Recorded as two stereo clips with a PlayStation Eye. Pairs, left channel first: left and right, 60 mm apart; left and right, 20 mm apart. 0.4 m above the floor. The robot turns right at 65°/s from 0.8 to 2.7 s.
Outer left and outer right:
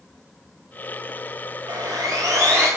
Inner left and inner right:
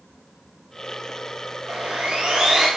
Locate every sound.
1.7 s sawing: 95° right, 9 m; by 2.7 s 30° right, 9 m